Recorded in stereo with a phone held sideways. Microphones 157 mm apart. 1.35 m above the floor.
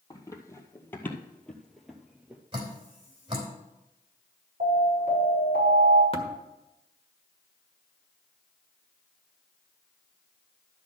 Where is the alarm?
80° right, 5.5 m.